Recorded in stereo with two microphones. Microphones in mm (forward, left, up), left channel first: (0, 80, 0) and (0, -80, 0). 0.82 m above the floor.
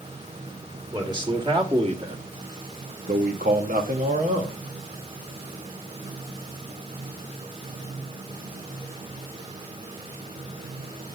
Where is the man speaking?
25° right (ahead or behind), 1.8 m; by 4.6 s 50° right (ahead or behind), 1.5 m.